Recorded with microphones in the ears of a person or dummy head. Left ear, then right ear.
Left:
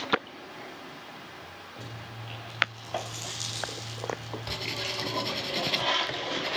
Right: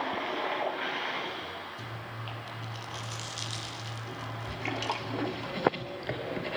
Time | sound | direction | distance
1.8 | chewing | 85° right | 7 m
4.5 | writing | 25° left (ahead or behind) | 2.5 m